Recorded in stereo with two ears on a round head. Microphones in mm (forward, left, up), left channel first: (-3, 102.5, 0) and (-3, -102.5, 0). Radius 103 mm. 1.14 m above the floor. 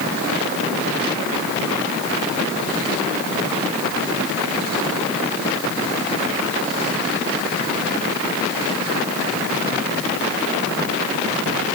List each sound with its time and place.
Only background noise.